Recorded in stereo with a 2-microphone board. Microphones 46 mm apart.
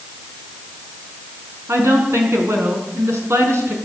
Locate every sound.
1.7 s a woman speaking: 75° right (ahead or behind), 4.5 m